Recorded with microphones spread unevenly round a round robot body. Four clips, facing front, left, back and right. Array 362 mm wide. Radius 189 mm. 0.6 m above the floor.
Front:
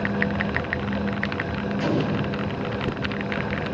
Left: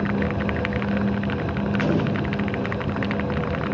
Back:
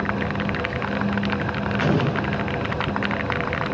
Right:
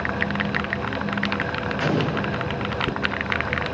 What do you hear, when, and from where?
1.8 s an explosion: 155° right, 7 m